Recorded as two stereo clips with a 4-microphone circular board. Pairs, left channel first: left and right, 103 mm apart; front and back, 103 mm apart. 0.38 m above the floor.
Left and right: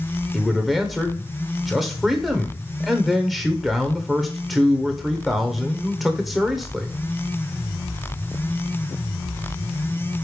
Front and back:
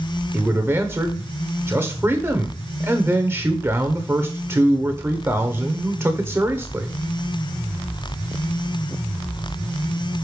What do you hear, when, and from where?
0.3 s a man speaking: straight behind, 0.9 m